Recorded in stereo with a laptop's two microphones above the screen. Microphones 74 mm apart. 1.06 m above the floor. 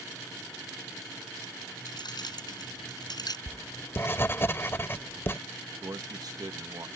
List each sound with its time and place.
1.9 s keys jangling: 70° left (ahead or behind); by 3.4 s 65° left (ahead or behind)
3.5 s writing: 30° left (ahead or behind)
5.8 s a man speaking: 55° right (ahead or behind)